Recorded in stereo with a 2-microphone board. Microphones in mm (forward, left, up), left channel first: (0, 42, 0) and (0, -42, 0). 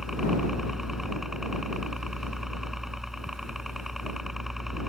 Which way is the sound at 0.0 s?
5° right (ahead or behind).